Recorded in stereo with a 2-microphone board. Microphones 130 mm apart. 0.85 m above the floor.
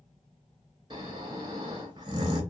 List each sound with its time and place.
0.9 s snoring: 35° right (ahead or behind), 0.7 m